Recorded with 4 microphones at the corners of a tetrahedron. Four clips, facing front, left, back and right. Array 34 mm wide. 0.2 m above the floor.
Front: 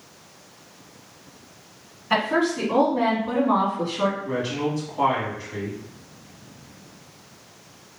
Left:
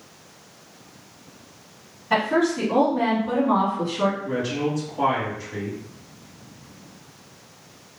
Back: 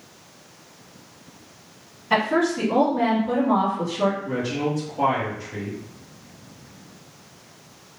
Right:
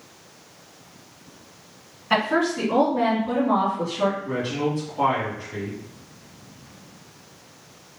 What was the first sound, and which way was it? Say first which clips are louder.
A woman speaking: left 1 dB, back 1 dB; 60° right.